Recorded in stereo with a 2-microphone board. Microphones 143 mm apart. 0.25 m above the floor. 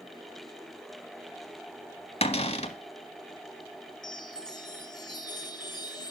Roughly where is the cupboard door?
Left.